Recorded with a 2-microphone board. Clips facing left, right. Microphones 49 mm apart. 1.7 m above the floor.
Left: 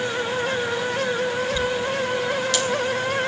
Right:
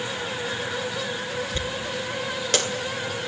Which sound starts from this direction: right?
A dropped coin, at 1.5 s.